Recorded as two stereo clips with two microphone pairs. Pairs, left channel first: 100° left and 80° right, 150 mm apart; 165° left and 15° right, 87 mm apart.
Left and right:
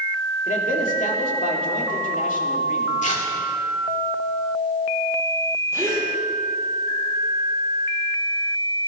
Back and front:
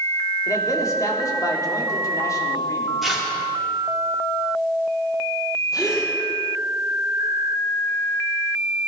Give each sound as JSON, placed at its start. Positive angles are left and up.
{"t": 0.5, "sound": "a man speaking", "azimuth_deg": 120, "distance_m": 2.5}
{"t": 3.0, "sound": "tearing paper", "azimuth_deg": 75, "distance_m": 2.5}
{"t": 5.7, "sound": "a gasp", "azimuth_deg": -155, "distance_m": 4.5}